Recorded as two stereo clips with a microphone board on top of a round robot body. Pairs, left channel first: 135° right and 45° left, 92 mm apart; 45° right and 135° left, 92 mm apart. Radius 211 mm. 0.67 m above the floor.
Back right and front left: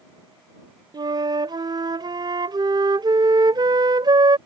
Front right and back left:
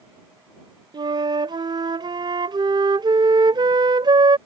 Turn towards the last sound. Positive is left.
turn(degrees=90)